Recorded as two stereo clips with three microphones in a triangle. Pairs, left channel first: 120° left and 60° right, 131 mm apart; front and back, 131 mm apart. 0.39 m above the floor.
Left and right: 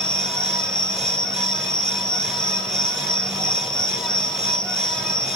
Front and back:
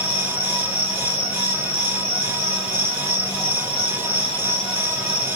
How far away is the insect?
About 1.1 m.